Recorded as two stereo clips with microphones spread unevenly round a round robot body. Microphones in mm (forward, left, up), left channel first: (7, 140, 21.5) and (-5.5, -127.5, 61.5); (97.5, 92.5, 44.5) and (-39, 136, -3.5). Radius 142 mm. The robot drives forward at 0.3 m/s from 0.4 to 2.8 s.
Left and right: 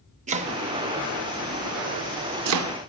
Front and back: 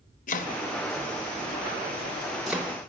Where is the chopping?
30° right, 0.7 m; by 2.9 s 110° right, 0.5 m.